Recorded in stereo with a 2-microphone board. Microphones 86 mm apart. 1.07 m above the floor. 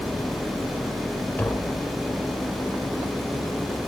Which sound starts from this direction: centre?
Tapping, at 1.4 s.